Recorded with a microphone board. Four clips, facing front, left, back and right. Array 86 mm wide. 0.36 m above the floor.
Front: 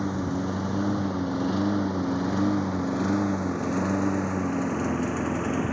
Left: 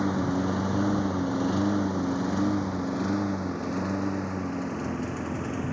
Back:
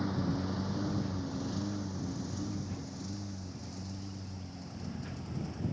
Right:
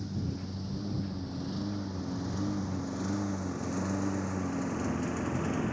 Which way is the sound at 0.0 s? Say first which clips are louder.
Left 12 dB, front 6 dB; 70° left.